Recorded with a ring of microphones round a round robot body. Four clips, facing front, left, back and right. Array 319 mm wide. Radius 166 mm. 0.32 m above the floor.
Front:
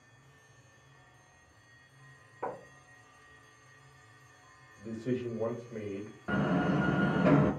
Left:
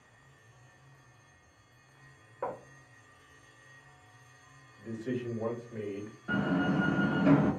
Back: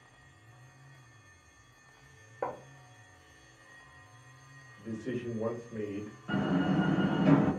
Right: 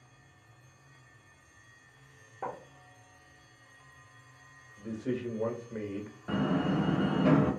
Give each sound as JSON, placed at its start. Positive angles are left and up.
{"t": 2.4, "sound": "writing", "azimuth_deg": 180, "distance_m": 1.2}
{"t": 4.8, "sound": "a man speaking", "azimuth_deg": -80, "distance_m": 1.4}
{"t": 6.3, "sound": "a door slam", "azimuth_deg": -25, "distance_m": 0.8}